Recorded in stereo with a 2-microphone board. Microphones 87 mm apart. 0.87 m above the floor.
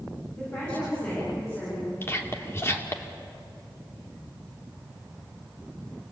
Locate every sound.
0.4 s a woman speaking: 20° left (ahead or behind), 9.5 m; by 1.9 s 30° left (ahead or behind), 11 m
2.0 s whispering: 30° left (ahead or behind), 2.5 m